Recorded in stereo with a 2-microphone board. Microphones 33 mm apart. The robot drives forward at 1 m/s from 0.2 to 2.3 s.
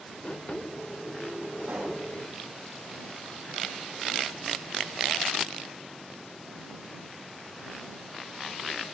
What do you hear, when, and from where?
1.7 s a pop: 65° right (ahead or behind), 1.5 m; by 2.0 s 55° right (ahead or behind), 1.6 m